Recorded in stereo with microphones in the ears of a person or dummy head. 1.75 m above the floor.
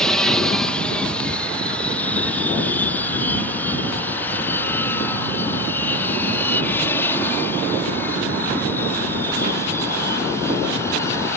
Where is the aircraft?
5° left (ahead or behind); by 11.4 s 20° left (ahead or behind).